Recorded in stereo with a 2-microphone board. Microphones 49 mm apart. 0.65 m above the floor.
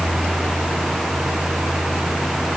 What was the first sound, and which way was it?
Only background noise.